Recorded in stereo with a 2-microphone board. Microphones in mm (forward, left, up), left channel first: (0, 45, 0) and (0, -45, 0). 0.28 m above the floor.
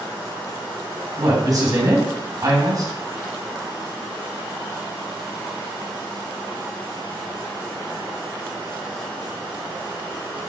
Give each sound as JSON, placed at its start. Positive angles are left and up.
{"t": 1.2, "sound": "a woman speaking", "side_deg": -45, "distance_m": 1.8}